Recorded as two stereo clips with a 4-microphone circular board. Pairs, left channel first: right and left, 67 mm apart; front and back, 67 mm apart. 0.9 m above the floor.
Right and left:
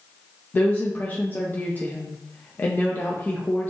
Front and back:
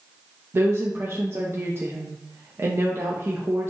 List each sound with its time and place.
0.5 s a woman speaking: 140° right, 0.6 m